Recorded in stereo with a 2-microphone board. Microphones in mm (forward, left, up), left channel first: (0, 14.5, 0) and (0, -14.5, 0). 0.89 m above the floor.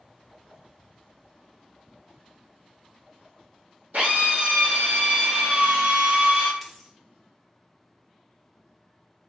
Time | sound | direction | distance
3.9 | a drill | 80° right | 1.1 m
6.6 | a dropped coin | 15° right (ahead or behind) | 0.6 m